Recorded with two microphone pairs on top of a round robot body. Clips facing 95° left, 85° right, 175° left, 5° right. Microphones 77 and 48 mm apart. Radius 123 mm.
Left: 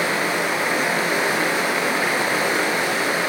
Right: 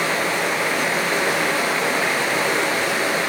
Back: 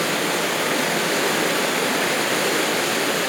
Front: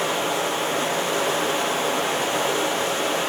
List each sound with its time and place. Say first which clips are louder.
0.0 s running water: even, back 1 dB; 170° left, 6.5 m